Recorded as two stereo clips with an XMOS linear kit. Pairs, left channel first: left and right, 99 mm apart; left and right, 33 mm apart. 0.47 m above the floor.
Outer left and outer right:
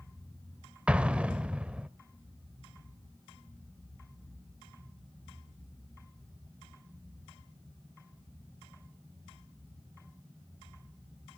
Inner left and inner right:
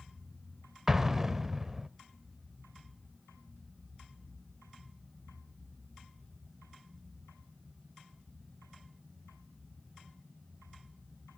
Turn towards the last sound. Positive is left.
turn(degrees=-10)  # may be behind; listen again after turning